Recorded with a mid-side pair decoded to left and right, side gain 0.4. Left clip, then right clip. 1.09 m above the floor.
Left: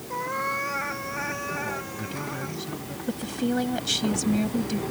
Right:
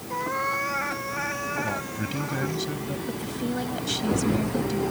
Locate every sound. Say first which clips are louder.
0.1 s a cat meowing: right 1 dB; 5° right; by 2.6 s 10° right
1.6 s a man speaking: right 2 dB; 45° right
3.1 s a woman speaking: left 2 dB; 35° left